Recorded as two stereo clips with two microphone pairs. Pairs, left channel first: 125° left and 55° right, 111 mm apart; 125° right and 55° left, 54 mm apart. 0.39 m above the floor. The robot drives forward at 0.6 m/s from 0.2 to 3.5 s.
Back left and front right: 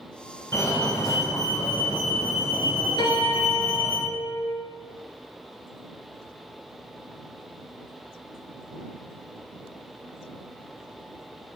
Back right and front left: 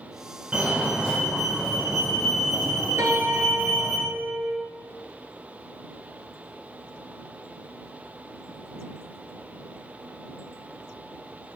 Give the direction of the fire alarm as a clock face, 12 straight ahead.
9 o'clock.